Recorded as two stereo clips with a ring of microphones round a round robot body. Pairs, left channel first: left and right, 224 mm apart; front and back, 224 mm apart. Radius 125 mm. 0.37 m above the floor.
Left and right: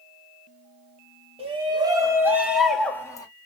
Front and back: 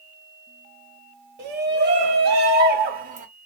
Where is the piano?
No piano in this recording.